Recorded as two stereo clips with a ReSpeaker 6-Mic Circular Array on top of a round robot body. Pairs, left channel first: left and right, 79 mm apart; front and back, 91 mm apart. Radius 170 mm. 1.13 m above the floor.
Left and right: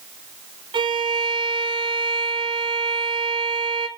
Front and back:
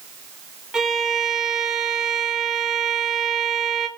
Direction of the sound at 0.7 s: 95° right.